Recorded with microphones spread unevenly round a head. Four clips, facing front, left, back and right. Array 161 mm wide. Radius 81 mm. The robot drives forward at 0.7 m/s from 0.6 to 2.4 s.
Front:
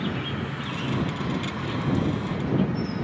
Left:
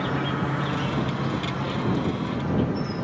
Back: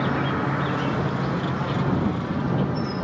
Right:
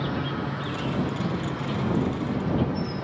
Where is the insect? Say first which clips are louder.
Left 3 dB, back 6 dB; 160° left; by 3.0 s 170° left.